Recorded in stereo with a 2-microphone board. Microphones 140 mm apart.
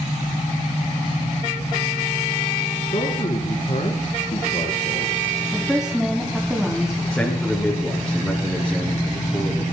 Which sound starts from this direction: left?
A man speaking, at 2.9 s.